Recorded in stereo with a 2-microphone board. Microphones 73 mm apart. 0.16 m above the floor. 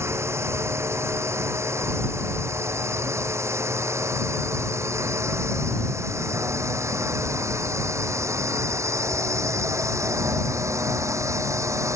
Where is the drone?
35° right (ahead or behind); by 12.0 s 45° right (ahead or behind).